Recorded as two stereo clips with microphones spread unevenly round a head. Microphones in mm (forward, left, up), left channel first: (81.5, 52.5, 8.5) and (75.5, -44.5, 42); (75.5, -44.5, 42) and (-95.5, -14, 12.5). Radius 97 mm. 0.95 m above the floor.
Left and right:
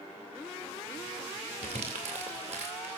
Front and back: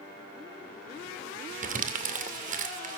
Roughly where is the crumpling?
Behind right.